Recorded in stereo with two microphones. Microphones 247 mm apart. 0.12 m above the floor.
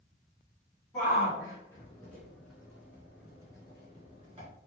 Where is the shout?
20° left (ahead or behind), 1.8 m; by 4.5 s 25° right (ahead or behind), 1.8 m.